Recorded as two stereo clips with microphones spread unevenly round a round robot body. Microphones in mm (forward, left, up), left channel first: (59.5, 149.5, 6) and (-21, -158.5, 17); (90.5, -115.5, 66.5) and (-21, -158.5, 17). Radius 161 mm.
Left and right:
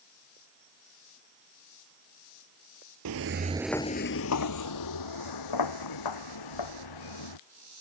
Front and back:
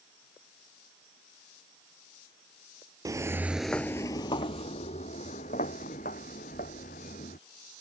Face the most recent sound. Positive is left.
turn(degrees=65)